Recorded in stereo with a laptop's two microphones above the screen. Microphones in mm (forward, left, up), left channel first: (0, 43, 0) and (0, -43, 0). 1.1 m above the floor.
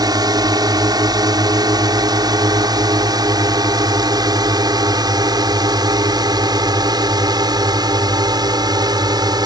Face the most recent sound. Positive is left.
turn(degrees=-50)  # may be behind; listen again after turning